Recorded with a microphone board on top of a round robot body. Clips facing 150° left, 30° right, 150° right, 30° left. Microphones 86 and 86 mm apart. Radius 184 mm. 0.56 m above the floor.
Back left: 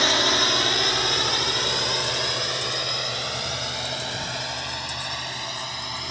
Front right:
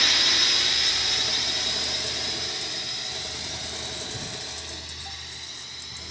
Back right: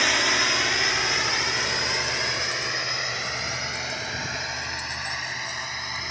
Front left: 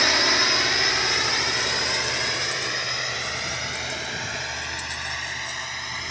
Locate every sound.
0.0 s a drone: 110° left; by 6.1 s 125° left